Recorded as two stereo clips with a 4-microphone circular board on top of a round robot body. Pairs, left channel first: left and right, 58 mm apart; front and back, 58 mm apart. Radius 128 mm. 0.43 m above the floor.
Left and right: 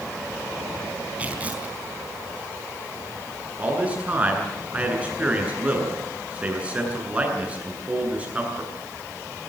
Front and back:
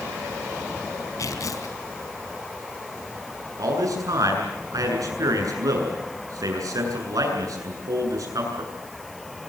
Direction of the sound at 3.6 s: 160° right.